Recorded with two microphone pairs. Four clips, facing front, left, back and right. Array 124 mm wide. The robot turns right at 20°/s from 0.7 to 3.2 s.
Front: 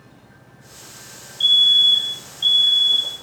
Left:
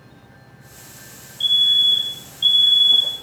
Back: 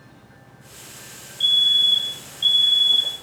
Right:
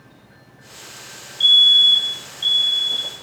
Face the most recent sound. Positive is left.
turn(degrees=-5)